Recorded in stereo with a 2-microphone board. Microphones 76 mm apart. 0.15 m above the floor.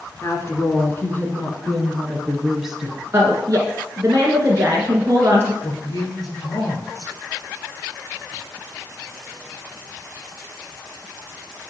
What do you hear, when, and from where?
0.2 s a woman speaking: 40° left (ahead or behind), 2 m; by 3.0 s 15° right (ahead or behind), 1.8 m
3.1 s a woman speaking: 35° right (ahead or behind), 1.5 m
5.6 s a man speaking: 50° left (ahead or behind), 2.5 m